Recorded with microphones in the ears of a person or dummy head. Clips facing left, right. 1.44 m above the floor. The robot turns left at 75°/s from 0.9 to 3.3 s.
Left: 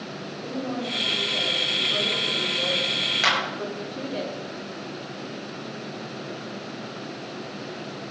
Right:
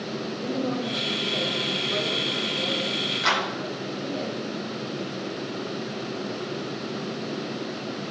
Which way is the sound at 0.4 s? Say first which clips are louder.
Right 2 dB; 45° right.